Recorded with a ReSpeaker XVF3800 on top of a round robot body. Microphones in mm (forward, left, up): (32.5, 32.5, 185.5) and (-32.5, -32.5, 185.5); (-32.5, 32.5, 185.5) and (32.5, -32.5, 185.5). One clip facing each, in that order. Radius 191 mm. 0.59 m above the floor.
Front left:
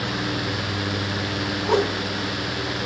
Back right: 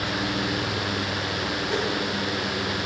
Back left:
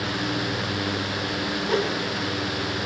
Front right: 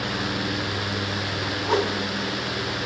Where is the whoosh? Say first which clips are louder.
Front left 8 dB, front right 2 dB; 15° left, 2 m.